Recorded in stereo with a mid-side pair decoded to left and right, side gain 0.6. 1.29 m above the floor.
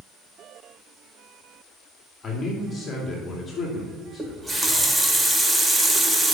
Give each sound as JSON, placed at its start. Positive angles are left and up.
{"t": 2.2, "sound": "a man speaking", "azimuth_deg": 25, "distance_m": 2.5}
{"t": 4.2, "sound": "a running tap", "azimuth_deg": -15, "distance_m": 1.5}